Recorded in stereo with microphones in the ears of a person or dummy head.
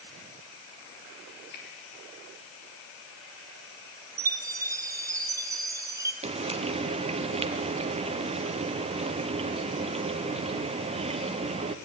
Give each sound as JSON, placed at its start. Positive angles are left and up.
{"t": 1.5, "sound": "a finger snap", "side_deg": 55, "distance_m": 3.5}
{"t": 4.2, "sound": "a chime", "side_deg": -10, "distance_m": 0.8}
{"t": 6.2, "sound": "frying", "side_deg": -30, "distance_m": 0.8}